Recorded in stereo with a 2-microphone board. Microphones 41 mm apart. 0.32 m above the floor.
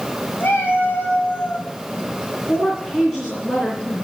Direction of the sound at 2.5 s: 10° left (ahead or behind).